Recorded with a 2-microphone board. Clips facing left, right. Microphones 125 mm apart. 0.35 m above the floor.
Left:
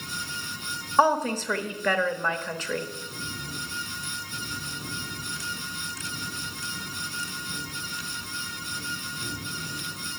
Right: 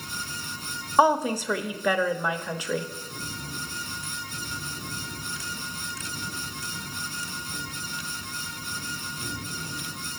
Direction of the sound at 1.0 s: 10° right (ahead or behind).